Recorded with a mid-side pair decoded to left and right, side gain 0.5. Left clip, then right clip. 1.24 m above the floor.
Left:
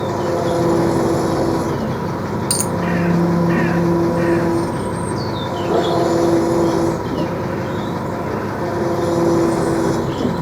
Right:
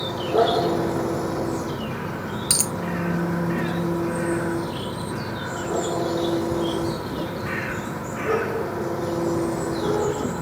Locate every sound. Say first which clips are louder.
0.0 s an engine running: left 2 dB; 50° left
2.5 s a dropped coin: left 1 dB; straight ahead